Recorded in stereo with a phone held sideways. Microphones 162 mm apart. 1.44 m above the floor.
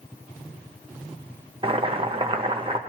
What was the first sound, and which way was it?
Boiling, 35° right (ahead or behind).